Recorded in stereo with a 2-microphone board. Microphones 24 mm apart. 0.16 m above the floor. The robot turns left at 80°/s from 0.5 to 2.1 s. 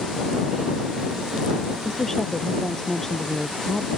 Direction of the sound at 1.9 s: 5° right (ahead or behind).